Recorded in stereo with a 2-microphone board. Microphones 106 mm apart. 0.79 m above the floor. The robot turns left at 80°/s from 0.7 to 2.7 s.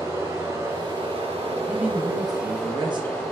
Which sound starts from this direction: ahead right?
Running water, at 0.0 s.